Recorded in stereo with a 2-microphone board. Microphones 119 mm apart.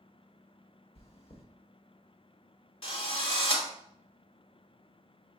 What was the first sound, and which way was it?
Chewing, 55° left (ahead or behind).